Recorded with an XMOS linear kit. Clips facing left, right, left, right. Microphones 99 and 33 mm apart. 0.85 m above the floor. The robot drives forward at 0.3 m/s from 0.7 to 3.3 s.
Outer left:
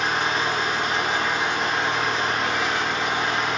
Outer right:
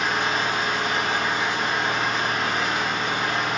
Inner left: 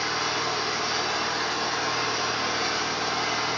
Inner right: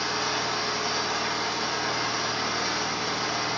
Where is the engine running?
50° left (ahead or behind), 1.1 m; by 3.6 s 65° left (ahead or behind), 0.9 m.